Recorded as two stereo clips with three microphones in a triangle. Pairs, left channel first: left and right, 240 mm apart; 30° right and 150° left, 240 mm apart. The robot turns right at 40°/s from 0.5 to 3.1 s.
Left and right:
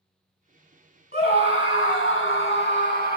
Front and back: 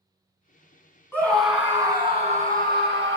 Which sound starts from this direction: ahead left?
A scream, at 1.1 s.